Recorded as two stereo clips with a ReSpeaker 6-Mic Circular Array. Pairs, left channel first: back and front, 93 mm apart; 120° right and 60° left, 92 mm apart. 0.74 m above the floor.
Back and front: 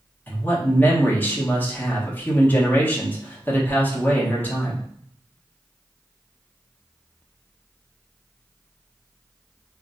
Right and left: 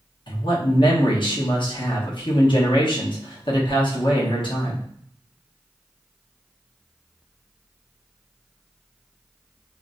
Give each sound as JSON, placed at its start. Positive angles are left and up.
{"t": 0.3, "sound": "a man speaking", "azimuth_deg": -115, "distance_m": 0.9}